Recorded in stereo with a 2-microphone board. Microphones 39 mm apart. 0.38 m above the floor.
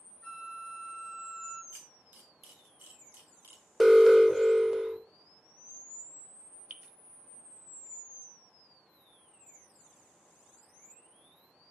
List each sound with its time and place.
0.2 s a flute: 5° left (ahead or behind), 4 m
1.7 s a camera shutter: 50° right (ahead or behind), 2 m
3.8 s an alarm: 10° right (ahead or behind), 0.7 m
6.7 s dripping: 40° right (ahead or behind), 0.5 m